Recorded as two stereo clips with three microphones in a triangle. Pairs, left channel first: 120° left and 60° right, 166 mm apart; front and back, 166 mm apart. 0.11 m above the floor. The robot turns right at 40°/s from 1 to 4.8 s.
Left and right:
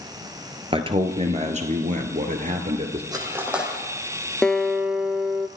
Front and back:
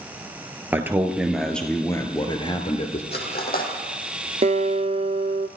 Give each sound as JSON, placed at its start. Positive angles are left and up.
{"t": 0.7, "sound": "a man speaking", "azimuth_deg": -105, "distance_m": 1.6}
{"t": 3.1, "sound": "cutlery clinking", "azimuth_deg": 5, "distance_m": 3.5}
{"t": 4.4, "sound": "a guitar", "azimuth_deg": -155, "distance_m": 0.7}